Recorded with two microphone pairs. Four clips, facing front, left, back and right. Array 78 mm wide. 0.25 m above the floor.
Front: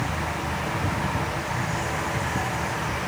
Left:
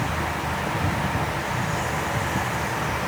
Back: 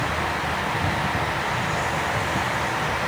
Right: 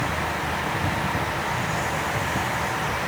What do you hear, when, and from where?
Only background noise.